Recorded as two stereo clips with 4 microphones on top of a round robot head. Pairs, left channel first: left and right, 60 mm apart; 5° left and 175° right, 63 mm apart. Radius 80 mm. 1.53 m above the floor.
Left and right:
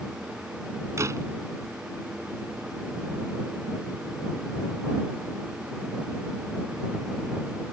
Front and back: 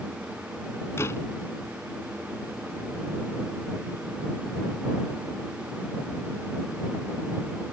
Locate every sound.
1.0 s a door slam: 50° right